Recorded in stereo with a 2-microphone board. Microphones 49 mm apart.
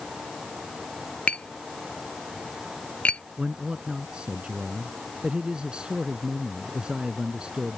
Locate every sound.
1.3 s tapping: 25° left (ahead or behind)
3.4 s a man speaking: 20° right (ahead or behind)